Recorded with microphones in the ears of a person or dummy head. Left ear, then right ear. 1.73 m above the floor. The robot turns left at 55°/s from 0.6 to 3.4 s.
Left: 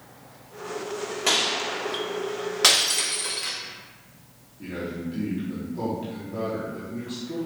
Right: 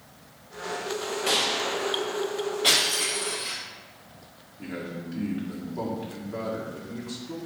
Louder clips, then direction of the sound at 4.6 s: Left 3 dB; 45° right (ahead or behind).